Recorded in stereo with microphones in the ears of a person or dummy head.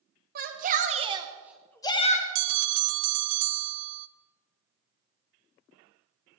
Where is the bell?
70° right (ahead or behind), 0.7 m.